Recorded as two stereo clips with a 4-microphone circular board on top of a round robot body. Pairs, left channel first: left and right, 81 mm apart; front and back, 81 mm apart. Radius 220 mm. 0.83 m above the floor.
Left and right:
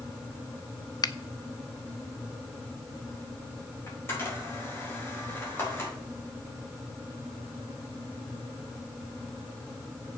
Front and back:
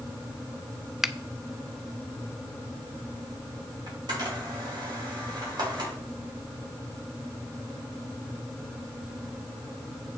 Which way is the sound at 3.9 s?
150° left.